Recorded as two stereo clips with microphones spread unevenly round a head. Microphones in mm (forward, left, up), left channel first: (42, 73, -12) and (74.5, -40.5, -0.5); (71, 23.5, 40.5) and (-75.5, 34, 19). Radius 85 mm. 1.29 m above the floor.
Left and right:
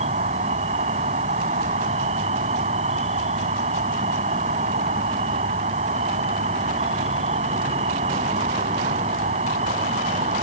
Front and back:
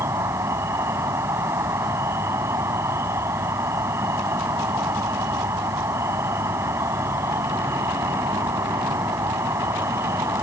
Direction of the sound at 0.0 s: 105° right.